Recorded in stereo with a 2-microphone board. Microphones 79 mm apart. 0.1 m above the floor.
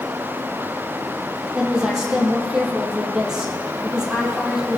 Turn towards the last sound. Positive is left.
turn(degrees=-10)  # may be behind; listen again after turning